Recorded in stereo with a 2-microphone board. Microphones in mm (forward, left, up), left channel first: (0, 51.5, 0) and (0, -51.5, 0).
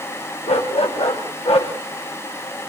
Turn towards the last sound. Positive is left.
turn(degrees=65)  # may be behind; listen again after turning